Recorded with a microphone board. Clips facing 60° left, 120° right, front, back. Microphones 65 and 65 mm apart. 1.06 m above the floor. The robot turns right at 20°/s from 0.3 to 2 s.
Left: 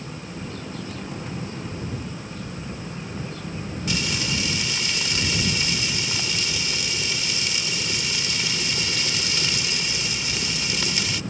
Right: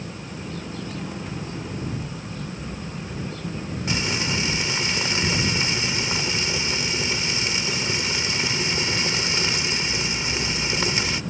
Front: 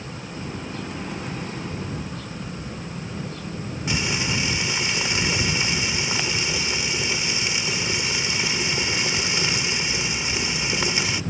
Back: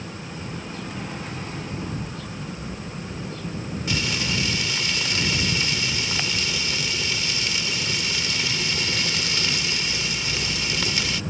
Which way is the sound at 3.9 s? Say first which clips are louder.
Right 1 dB, front 2 dB; 70° right.